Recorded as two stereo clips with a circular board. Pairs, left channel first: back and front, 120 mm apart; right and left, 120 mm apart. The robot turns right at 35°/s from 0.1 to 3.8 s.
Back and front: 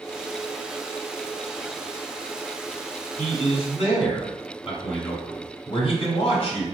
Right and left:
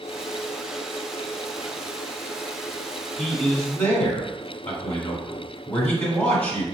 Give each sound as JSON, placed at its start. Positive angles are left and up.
{"t": 3.2, "sound": "a man speaking", "azimuth_deg": 170, "distance_m": 1.7}